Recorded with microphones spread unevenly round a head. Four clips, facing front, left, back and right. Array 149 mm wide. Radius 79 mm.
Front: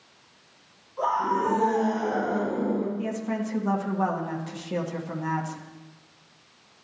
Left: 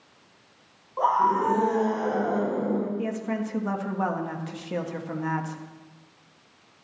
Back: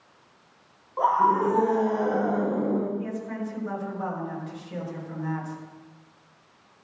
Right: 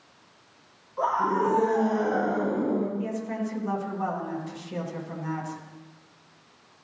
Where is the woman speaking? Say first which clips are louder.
Left 1 dB, front 3 dB; 55° left, 1.8 m.